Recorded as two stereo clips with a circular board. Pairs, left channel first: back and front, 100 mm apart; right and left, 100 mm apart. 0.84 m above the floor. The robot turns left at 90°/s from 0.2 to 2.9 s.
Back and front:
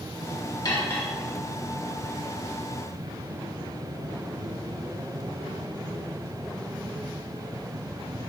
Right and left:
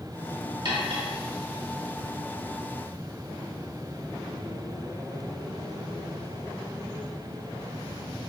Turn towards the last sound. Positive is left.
turn(degrees=-70)